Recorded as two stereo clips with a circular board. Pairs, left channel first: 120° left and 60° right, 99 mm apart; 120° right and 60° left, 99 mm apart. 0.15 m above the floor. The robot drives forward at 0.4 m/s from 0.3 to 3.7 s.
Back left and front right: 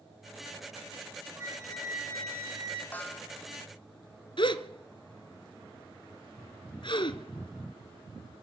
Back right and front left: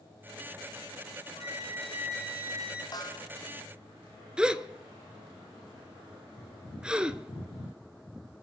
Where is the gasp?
140° left, 0.8 m.